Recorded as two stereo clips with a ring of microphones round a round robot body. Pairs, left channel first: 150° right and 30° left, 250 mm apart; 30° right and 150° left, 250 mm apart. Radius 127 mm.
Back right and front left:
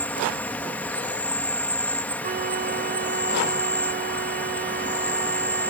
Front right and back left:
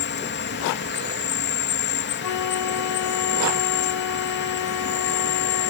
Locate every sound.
0.0 s an insect: 65° right
2.2 s a flute: 25° right